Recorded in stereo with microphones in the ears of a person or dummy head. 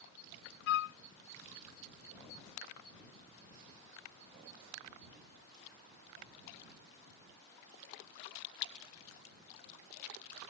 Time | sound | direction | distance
0.7 | a flute | 65° left (ahead or behind) | ?